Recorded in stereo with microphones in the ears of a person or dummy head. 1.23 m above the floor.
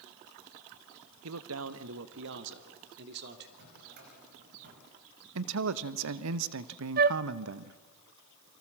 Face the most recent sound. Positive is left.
turn(degrees=-45)  # may be behind; listen again after turning